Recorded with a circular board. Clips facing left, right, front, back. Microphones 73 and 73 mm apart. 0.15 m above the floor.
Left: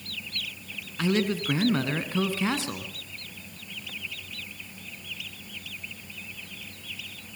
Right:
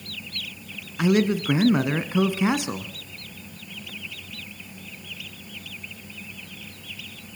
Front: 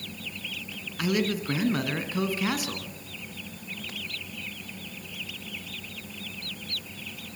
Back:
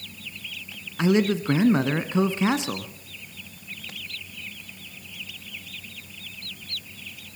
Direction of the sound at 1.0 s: 145° right.